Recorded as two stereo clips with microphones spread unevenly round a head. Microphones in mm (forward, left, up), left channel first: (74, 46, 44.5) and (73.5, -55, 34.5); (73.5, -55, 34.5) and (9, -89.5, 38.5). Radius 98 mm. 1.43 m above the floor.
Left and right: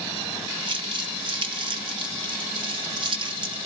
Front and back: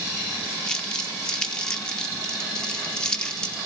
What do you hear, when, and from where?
0.7 s crumpling: 50° right, 1.4 m